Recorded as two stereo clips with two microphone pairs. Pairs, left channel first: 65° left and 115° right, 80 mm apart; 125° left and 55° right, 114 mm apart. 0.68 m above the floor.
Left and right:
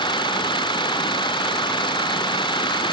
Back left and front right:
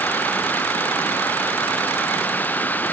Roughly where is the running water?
Ahead left.